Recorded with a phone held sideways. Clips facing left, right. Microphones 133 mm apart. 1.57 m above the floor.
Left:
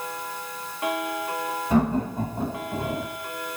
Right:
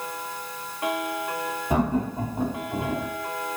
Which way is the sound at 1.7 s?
15° right (ahead or behind).